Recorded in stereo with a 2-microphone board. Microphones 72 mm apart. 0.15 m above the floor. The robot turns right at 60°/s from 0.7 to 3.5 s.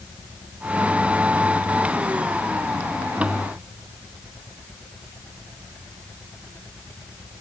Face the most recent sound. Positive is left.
No sound to turn to.